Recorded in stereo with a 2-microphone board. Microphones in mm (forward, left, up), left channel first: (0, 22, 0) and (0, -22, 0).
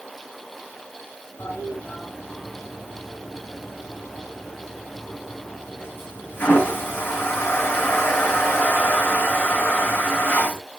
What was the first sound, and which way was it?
A toilet flushing, 55° left (ahead or behind).